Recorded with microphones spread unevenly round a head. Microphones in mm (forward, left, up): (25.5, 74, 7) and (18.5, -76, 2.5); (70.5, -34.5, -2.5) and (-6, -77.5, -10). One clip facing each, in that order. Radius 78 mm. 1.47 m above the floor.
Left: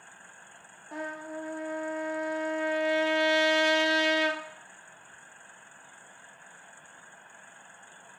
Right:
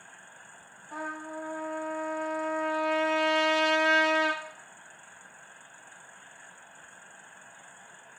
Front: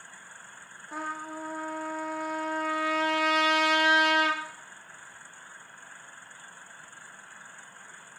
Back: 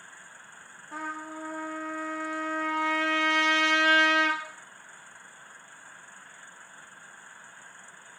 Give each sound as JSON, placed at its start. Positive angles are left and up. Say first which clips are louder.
{"t": 0.9, "sound": "a trumpet", "louder": "left 1 dB, front 1 dB", "azimuth_deg": 85, "distance_m": 0.5}